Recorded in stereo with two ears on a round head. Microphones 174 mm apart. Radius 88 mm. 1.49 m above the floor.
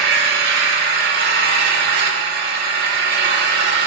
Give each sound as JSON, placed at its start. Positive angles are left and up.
{"t": 0.0, "sound": "an engine running", "side_deg": -50, "distance_m": 1.8}